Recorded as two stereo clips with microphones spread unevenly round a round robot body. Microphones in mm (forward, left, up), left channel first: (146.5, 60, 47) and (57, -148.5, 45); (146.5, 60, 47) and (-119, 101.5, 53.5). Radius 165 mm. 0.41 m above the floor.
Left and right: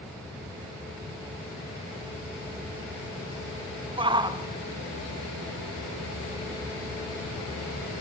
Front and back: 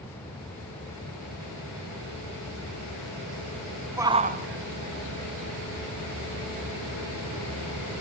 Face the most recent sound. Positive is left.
turn(degrees=155)